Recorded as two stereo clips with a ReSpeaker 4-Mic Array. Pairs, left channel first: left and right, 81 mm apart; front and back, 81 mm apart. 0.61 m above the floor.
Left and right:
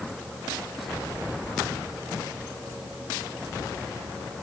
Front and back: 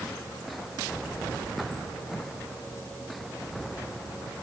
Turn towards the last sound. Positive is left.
No sound to turn to.